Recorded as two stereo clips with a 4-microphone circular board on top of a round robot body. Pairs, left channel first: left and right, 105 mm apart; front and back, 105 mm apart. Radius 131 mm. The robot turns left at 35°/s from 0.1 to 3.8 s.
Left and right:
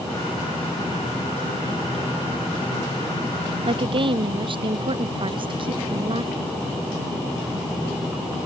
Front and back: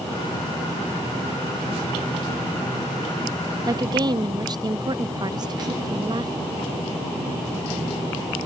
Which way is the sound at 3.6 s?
125° right.